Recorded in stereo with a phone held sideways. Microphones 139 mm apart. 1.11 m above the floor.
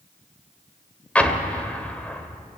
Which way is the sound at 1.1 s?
10° left (ahead or behind).